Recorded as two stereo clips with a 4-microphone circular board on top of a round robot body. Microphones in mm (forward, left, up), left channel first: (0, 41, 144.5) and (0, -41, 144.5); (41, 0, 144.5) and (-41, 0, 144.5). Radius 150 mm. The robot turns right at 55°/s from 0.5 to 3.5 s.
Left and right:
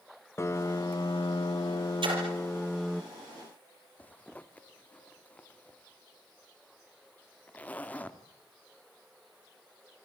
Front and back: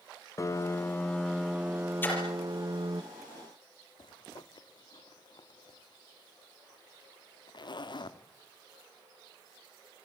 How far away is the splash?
About 6.5 m.